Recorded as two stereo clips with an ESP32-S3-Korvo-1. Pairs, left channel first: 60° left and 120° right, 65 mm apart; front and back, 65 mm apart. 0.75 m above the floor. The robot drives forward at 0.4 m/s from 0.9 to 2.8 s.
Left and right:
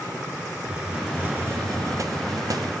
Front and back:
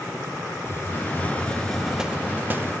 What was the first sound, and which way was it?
A hiss, 50° right.